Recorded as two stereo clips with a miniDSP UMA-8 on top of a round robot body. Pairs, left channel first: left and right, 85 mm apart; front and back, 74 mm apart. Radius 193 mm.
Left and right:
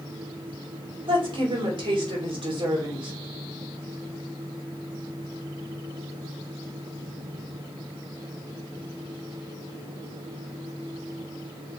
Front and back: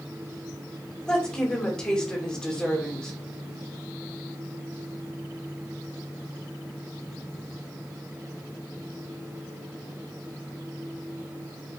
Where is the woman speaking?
80° right, 3 m.